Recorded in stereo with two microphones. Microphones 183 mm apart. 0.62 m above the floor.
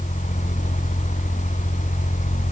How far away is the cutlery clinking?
No cutlery clinking in this recording.